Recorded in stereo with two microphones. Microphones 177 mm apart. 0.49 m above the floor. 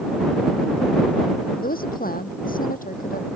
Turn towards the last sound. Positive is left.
turn(degrees=50)  # may be behind; listen again after turning